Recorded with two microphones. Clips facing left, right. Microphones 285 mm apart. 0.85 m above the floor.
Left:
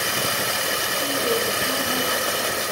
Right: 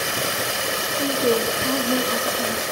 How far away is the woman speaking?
About 0.6 m.